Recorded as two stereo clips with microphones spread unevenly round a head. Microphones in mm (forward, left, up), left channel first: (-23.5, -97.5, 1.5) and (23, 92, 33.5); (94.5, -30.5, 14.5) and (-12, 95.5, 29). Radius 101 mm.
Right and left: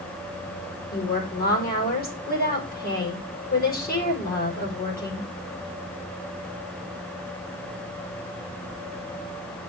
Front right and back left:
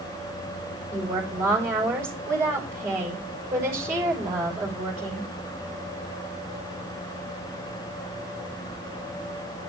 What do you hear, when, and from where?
0.9 s a woman speaking: 150° right, 5 m